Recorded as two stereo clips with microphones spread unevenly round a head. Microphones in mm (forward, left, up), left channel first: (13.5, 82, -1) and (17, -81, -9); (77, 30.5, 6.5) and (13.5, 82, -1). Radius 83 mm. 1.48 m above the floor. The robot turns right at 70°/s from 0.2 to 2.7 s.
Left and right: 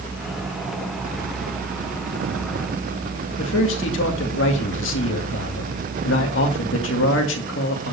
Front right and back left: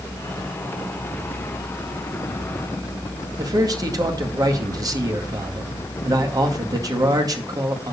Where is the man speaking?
100° left, 2 m.